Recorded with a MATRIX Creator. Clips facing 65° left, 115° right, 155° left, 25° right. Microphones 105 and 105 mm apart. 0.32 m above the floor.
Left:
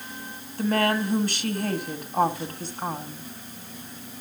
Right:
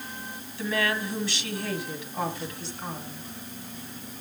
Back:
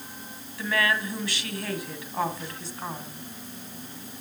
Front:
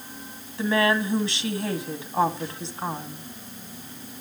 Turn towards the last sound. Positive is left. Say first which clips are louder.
# left 5 dB, front 5 dB
turn(degrees=35)